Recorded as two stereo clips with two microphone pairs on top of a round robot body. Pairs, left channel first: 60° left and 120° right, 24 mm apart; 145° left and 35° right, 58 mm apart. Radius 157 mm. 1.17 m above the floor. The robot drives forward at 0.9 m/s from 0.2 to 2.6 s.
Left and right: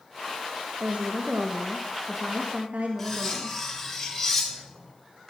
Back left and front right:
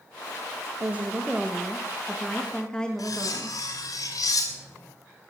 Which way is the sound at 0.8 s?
95° right.